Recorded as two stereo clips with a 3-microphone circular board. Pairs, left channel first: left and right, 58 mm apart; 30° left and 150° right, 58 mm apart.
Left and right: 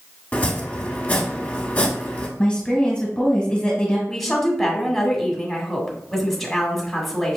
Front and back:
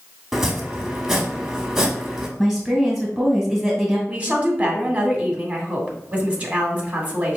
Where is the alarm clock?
I don't hear an alarm clock.